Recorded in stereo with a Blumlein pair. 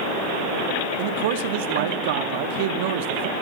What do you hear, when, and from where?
1.0 s a man speaking: 50° right, 2.5 m